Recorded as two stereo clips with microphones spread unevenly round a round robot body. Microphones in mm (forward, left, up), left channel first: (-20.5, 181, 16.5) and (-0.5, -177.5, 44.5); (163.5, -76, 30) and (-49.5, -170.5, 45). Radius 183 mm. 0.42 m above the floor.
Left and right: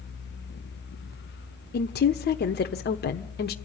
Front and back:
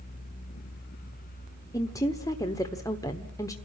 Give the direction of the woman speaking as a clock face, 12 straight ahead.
9 o'clock.